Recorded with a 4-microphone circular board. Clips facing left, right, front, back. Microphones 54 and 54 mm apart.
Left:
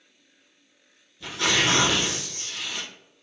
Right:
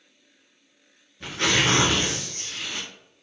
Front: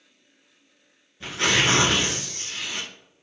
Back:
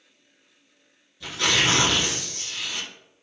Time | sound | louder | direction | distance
1.2 | tearing paper | right 1 dB, front 1 dB | 50° right | 1.0 m